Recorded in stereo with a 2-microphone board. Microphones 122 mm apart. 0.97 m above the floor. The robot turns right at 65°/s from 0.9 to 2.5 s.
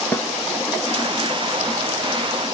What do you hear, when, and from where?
0.1 s a snare drum: 20° left (ahead or behind), 0.6 m